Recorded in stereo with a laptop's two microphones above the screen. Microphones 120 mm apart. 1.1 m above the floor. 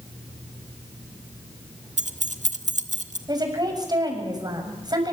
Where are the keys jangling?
75° right (ahead or behind), 1.3 m.